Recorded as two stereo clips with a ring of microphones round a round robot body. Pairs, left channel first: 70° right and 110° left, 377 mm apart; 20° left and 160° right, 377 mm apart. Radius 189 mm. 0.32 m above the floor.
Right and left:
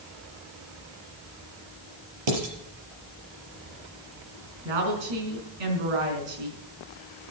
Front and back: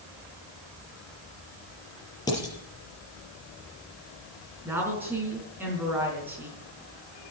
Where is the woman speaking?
120° left, 4.5 m.